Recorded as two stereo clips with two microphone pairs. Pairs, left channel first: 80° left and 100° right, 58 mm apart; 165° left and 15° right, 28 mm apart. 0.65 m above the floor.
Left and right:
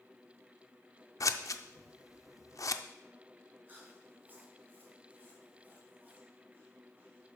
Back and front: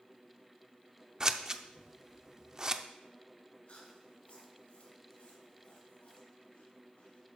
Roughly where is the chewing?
Behind right.